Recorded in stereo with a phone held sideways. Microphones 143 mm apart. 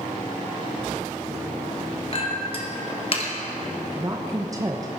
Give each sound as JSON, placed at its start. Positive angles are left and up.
{"t": 2.1, "sound": "a clink", "side_deg": 40, "distance_m": 1.2}
{"t": 4.0, "sound": "a woman speaking", "side_deg": -25, "distance_m": 0.6}